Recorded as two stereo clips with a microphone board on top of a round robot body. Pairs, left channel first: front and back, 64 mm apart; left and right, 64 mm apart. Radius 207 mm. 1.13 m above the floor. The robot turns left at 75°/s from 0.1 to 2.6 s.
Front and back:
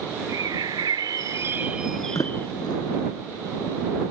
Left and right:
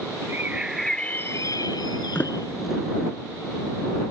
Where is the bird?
145° right; by 2.5 s 50° left.